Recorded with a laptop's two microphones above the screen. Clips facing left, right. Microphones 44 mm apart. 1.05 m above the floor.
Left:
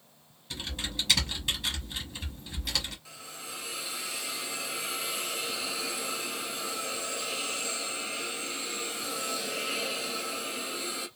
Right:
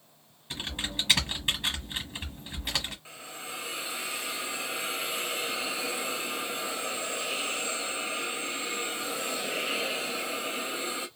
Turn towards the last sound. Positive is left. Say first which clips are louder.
# right 3 dB
turn(degrees=-25)  # may be behind; listen again after turning